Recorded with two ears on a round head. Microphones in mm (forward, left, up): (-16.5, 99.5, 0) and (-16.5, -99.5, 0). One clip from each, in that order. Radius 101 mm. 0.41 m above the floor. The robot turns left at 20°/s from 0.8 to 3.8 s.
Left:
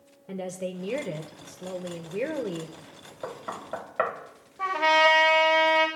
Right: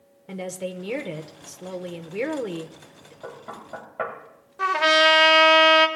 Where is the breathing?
No breathing in this recording.